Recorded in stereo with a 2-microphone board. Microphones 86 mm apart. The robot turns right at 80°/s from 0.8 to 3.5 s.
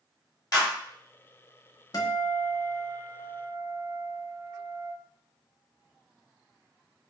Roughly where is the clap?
Left.